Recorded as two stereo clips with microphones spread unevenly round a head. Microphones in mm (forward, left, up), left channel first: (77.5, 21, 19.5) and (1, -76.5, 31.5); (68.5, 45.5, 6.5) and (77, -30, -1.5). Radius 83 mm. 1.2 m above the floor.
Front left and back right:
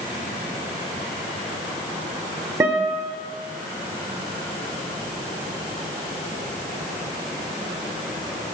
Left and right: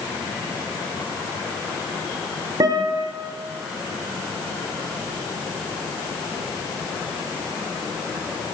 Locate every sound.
2.6 s a guitar: 75° right, 1.2 m